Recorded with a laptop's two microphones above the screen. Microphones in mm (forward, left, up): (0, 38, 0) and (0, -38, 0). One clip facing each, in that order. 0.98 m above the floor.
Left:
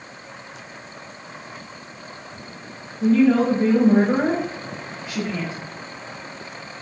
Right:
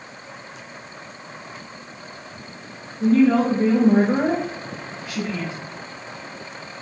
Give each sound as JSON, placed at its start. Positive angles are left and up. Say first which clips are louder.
{"t": 3.0, "sound": "a woman speaking", "louder": "even", "side_deg": -50, "distance_m": 0.7}